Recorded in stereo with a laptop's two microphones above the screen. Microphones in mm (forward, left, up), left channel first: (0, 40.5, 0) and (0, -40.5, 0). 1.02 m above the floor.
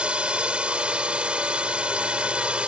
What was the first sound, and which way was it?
A drone, 15° right (ahead or behind).